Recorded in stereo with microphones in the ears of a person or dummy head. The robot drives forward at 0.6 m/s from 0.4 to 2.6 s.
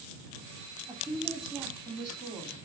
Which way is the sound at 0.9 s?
5° right (ahead or behind).